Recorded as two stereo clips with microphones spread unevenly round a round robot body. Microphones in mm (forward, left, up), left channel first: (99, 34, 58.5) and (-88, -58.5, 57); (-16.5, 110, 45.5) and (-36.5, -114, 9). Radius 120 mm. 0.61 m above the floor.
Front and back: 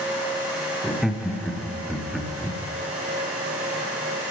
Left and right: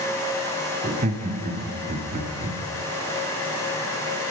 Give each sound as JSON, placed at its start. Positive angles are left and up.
{"t": 0.8, "sound": "laughter", "azimuth_deg": -65, "distance_m": 0.9}